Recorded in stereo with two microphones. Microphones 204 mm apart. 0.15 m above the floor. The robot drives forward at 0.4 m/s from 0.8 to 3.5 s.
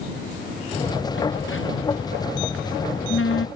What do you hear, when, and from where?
1.1 s a phone buzzing: 75° left (ahead or behind); by 3.5 s 85° left